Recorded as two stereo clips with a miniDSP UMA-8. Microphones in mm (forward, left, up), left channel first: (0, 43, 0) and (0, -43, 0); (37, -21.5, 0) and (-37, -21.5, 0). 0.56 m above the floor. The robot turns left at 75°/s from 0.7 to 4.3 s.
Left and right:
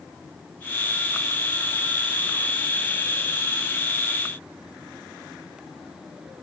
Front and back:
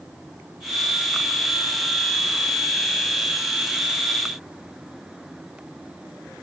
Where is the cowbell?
I don't hear a cowbell.